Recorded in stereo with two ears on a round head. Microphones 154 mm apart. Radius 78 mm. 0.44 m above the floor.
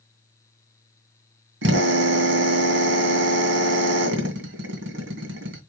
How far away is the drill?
About 2.5 m.